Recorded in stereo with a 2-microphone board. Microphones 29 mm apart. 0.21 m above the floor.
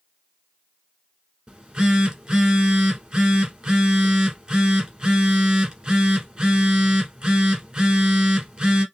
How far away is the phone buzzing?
About 1.4 m.